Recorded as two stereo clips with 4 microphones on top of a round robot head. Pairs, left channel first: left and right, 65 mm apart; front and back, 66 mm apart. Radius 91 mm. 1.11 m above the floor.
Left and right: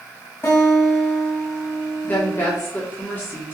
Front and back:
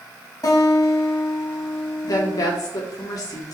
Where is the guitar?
30° left, 5.5 m.